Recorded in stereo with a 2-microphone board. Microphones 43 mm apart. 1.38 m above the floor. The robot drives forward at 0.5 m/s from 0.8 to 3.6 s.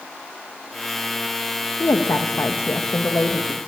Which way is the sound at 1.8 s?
90° left.